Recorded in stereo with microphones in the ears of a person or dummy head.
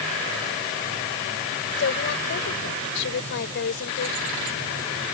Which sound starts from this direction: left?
A woman speaking, at 1.8 s.